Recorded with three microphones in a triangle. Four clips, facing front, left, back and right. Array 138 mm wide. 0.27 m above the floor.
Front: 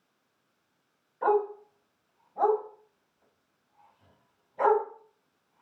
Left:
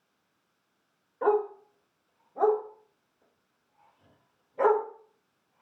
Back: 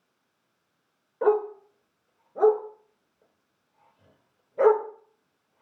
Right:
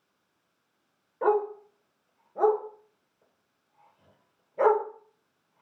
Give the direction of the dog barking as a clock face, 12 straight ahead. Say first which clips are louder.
Right 1 dB, back 2 dB; 6 o'clock.